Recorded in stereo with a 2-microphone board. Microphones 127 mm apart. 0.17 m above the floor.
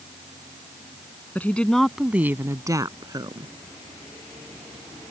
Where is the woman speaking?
15° left (ahead or behind); by 3.5 s 35° right (ahead or behind).